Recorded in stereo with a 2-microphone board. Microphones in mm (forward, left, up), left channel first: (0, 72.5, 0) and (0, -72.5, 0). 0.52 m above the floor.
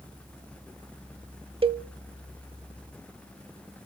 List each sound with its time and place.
1.6 s a cowbell: 40° right (ahead or behind), 0.5 m